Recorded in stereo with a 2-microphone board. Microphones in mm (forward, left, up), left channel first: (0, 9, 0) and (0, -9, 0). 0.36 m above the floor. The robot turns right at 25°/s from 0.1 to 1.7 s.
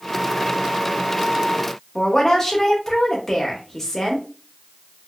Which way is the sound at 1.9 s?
15° left (ahead or behind).